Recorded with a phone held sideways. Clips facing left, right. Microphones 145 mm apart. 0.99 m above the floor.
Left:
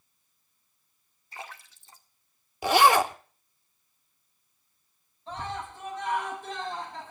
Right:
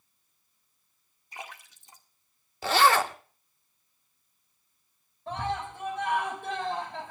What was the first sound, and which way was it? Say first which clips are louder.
A splash: even; 15° right (ahead or behind).